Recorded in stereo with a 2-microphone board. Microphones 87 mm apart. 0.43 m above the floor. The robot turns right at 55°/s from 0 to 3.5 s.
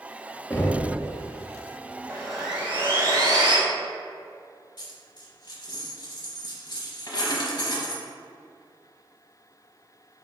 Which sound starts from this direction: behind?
Sawing, at 2.1 s.